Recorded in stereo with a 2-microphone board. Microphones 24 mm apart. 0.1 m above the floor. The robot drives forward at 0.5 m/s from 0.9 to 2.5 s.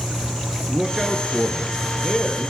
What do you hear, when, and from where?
0.7 s a man speaking: 10° right (ahead or behind), 1.5 m